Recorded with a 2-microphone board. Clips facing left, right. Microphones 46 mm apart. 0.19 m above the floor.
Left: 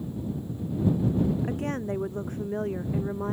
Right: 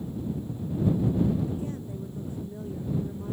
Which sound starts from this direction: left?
A woman speaking, at 1.4 s.